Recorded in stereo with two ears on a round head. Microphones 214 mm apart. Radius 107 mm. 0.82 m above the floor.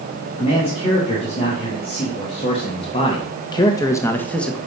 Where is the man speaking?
25° left (ahead or behind), 2.5 m; by 4.6 s centre (ahead or behind), 0.8 m.